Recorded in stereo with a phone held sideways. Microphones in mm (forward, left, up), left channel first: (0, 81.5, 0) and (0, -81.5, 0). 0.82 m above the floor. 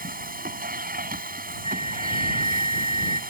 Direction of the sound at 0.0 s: 65° right (ahead or behind).